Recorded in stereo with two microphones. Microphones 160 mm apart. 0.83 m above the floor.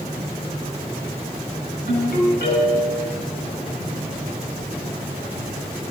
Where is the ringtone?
75° left (ahead or behind), 5.5 m.